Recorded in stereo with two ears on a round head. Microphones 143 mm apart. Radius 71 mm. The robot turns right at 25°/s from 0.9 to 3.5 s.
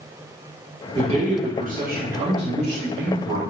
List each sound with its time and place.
0.9 s a man speaking: 145° right, 1.3 m; by 3.4 s 85° right, 1.3 m